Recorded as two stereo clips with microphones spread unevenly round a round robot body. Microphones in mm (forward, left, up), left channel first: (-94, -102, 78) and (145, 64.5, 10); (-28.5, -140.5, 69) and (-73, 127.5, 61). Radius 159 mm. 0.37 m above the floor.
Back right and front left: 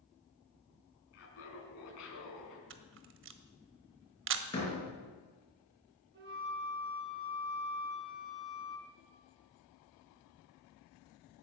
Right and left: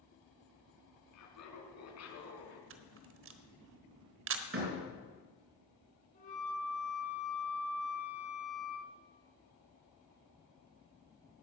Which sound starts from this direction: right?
Laughter, at 1.1 s.